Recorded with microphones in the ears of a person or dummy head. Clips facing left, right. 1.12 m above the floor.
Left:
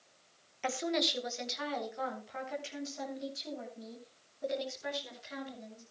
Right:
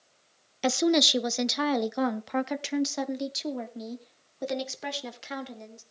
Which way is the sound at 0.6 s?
50° right (ahead or behind).